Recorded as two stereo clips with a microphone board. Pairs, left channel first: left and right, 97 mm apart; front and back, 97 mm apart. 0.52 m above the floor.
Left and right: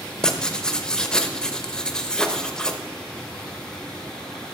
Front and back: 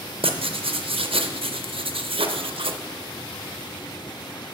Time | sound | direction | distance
0.2 | writing | 170° left | 0.6 m